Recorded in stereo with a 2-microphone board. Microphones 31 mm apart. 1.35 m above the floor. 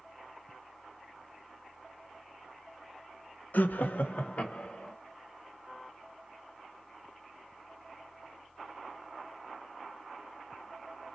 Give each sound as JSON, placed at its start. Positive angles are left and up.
{"t": 3.5, "sound": "laughter", "side_deg": 70, "distance_m": 0.7}